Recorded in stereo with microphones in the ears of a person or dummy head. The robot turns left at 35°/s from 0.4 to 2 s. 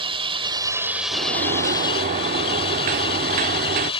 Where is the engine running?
155° right; by 4.0 s 150° left.